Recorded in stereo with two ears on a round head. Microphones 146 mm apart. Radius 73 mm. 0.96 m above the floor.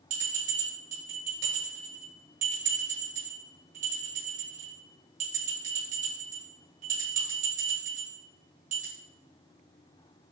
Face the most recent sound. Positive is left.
turn(degrees=-45)  # may be behind; listen again after turning